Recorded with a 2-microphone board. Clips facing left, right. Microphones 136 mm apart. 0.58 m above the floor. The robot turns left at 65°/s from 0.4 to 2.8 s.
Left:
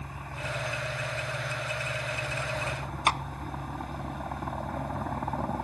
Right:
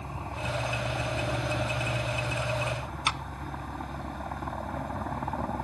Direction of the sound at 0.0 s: 25° right.